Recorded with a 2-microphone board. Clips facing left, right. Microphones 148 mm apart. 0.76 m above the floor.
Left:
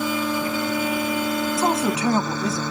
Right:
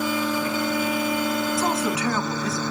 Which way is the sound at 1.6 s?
30° left (ahead or behind).